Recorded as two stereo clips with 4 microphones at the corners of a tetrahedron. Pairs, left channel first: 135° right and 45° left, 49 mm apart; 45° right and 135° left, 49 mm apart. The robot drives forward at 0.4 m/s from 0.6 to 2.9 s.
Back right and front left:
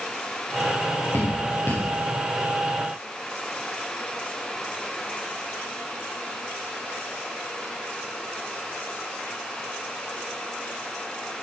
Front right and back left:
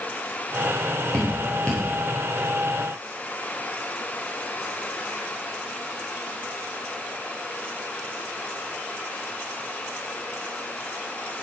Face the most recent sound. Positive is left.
turn(degrees=-125)